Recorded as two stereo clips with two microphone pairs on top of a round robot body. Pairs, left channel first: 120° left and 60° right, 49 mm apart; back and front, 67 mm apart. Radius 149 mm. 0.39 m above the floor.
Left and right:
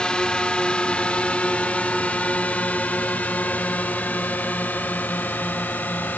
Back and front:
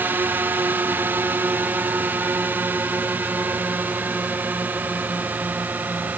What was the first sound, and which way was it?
A drone, 45° left.